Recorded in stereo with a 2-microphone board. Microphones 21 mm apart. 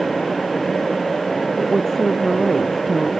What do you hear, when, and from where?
1.6 s a woman speaking: 10° left (ahead or behind)